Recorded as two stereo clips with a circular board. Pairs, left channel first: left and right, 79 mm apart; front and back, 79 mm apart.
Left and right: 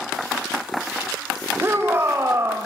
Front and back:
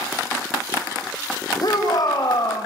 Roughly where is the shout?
Ahead right.